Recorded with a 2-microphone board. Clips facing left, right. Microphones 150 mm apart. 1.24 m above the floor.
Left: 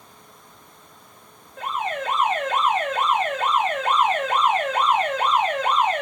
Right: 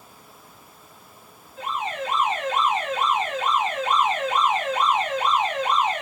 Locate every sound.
1.6 s an alarm: 55° left (ahead or behind), 1.0 m